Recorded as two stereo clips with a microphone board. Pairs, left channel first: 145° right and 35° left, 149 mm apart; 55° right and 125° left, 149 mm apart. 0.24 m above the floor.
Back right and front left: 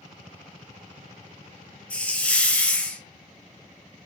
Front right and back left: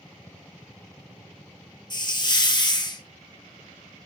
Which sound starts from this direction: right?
A hiss, at 1.9 s.